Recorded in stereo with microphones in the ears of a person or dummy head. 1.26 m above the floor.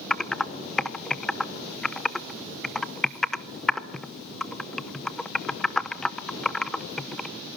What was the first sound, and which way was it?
Typing on a keyboard, centre (ahead or behind).